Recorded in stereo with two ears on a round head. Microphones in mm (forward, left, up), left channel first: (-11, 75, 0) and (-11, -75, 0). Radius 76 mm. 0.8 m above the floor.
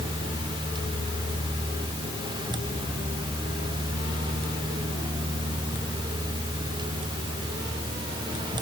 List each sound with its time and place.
Only background noise.